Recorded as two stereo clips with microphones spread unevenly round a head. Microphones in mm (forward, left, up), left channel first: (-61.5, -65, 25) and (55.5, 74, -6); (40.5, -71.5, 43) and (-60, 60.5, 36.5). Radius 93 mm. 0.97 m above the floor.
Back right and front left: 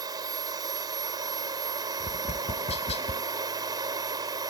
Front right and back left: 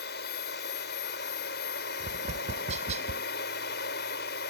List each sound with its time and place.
0.0 s a machine running: 20° right
2.0 s tapping: 170° left